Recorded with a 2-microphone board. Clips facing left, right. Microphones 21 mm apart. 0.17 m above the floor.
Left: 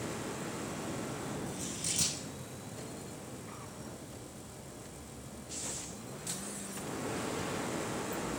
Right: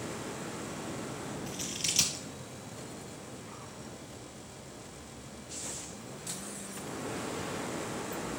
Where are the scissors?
70° right (ahead or behind), 2 m.